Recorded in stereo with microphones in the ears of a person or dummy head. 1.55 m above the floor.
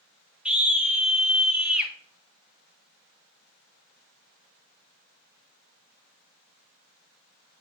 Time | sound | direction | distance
0.5 | a scream | 10° right (ahead or behind) | 1.3 m